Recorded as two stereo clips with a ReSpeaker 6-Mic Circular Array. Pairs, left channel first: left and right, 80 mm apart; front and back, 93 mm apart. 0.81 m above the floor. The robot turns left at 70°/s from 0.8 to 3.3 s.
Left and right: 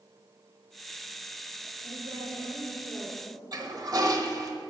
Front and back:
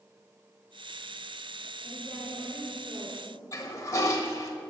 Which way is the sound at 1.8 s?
45° right.